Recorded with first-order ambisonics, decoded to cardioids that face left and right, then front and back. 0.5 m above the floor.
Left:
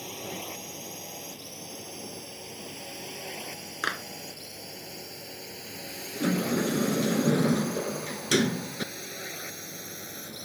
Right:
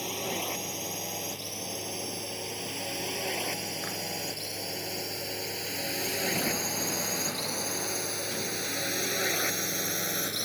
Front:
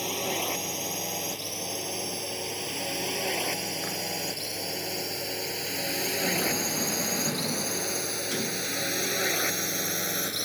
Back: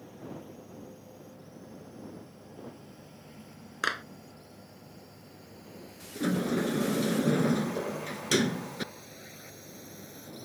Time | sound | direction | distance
0.0 | a drone | 15° right | ?
3.8 | a clap | 135° left | ?
6.2 | a sliding door | 120° left | ?